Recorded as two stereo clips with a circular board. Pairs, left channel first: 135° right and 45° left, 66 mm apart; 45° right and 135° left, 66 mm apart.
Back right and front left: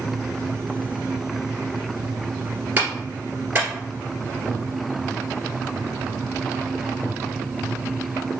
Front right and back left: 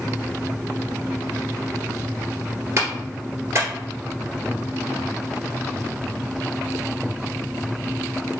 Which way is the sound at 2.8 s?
95° left.